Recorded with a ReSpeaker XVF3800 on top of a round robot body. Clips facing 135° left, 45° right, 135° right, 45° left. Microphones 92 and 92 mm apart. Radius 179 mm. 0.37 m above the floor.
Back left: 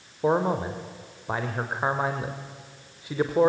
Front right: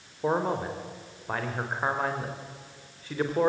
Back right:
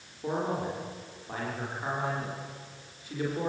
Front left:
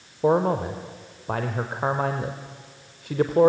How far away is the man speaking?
About 2.0 m.